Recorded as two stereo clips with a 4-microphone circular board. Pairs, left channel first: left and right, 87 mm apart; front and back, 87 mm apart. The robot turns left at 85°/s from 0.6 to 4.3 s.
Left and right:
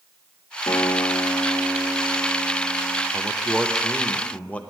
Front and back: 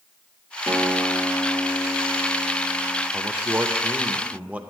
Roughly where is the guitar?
Behind left.